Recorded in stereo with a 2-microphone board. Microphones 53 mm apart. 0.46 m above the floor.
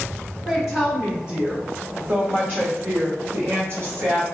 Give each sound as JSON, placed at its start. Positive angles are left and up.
{"t": 0.5, "sound": "a woman speaking", "side_deg": -5, "distance_m": 1.1}